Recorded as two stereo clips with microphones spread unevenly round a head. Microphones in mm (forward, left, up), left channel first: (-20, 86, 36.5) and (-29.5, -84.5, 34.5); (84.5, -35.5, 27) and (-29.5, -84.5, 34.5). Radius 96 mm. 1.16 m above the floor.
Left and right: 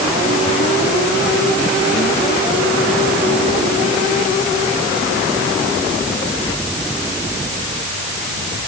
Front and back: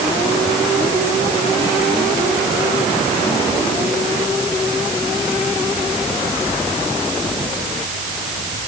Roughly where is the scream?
No scream in this recording.